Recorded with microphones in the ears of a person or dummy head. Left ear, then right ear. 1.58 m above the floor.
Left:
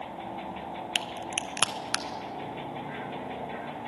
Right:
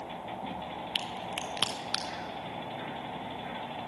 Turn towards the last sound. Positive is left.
turn(degrees=35)  # may be behind; listen again after turning